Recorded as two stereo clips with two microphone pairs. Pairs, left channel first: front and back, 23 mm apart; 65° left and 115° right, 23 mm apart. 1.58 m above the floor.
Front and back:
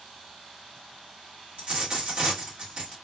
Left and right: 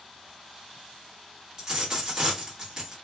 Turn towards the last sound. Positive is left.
turn(degrees=-170)